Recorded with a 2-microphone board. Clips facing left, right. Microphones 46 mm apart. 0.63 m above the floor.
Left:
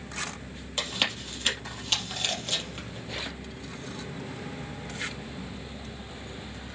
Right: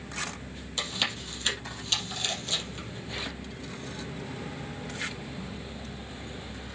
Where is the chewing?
30° left (ahead or behind), 3.5 m.